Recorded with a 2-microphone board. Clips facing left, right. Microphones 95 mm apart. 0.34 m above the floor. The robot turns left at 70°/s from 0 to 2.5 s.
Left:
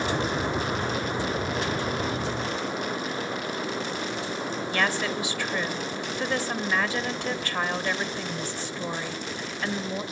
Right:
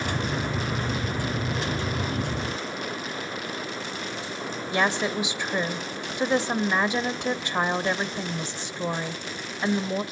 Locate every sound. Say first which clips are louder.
4.7 s a woman speaking: right 3 dB; 20° right (ahead or behind), 1.0 m